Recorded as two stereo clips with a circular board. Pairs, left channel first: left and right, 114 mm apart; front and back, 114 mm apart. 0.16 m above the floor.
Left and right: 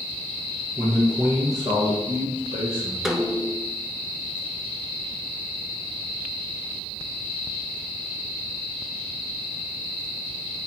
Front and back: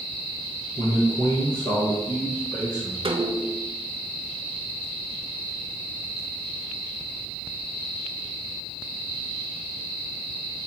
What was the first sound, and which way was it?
A man speaking, 25° right.